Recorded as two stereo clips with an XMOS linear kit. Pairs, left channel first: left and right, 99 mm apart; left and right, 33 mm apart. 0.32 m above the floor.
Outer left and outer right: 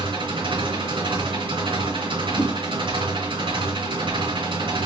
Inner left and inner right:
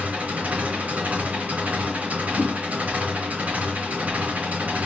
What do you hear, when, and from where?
0.0 s an engine running: 60° right (ahead or behind), 3 m
2.4 s a whoosh: 60° right (ahead or behind), 3 m